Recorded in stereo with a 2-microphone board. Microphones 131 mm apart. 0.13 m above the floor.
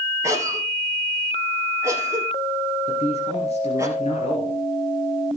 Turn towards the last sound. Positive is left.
turn(degrees=55)  # may be behind; listen again after turning